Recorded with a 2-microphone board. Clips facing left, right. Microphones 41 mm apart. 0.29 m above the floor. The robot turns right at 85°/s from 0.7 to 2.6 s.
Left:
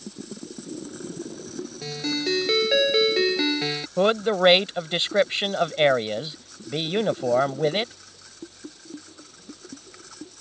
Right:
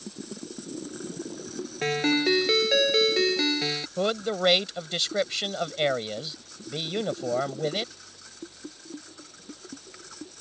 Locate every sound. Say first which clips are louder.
1.8 s a ringtone: right 5 dB; 60° right; by 3.9 s 10° left
4.0 s a man speaking: left 7 dB; 30° left (ahead or behind)